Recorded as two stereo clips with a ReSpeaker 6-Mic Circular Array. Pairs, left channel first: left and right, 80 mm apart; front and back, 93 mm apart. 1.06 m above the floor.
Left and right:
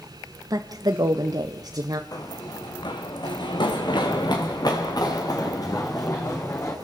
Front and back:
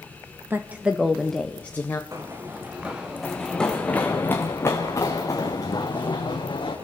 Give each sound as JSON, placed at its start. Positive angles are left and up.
{"t": 0.5, "sound": "a woman speaking", "azimuth_deg": -120, "distance_m": 1.2}
{"t": 2.1, "sound": "running footsteps", "azimuth_deg": 125, "distance_m": 3.0}